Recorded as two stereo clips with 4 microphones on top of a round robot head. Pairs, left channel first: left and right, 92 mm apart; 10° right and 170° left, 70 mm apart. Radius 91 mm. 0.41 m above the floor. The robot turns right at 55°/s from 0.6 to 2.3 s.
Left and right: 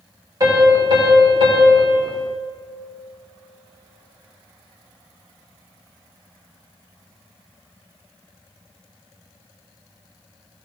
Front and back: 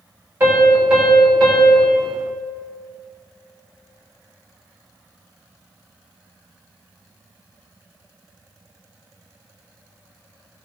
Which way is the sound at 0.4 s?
130° right.